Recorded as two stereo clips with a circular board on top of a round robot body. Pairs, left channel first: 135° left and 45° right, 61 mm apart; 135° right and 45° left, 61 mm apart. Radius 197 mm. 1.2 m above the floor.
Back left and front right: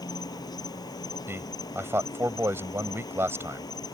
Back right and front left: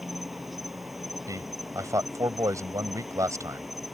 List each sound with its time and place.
0.0 s an insect: 135° left
1.3 s a man speaking: 5° left